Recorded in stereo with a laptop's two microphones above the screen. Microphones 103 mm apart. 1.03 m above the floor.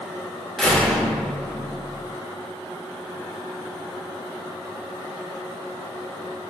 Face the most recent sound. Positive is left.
turn(degrees=5)  # may be behind; listen again after turning